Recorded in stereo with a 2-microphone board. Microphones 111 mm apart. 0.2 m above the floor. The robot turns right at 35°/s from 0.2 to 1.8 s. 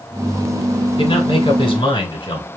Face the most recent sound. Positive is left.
turn(degrees=45)  # may be behind; listen again after turning